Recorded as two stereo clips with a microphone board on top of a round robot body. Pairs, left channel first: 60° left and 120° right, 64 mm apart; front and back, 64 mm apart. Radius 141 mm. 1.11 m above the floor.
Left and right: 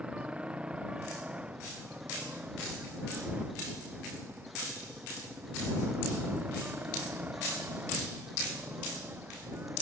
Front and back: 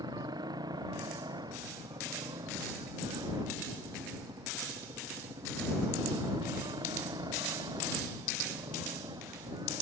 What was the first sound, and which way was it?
A motorcycle, 165° left.